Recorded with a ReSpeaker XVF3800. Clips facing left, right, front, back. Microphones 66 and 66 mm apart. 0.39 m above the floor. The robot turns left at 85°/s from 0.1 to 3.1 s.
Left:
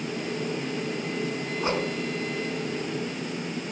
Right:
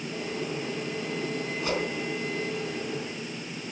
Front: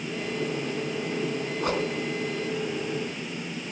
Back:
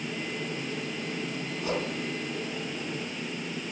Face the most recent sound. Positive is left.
turn(degrees=-90)